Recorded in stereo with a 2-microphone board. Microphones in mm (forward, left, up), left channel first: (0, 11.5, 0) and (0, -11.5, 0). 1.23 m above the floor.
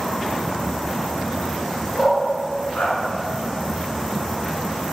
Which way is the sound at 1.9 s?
75° left (ahead or behind).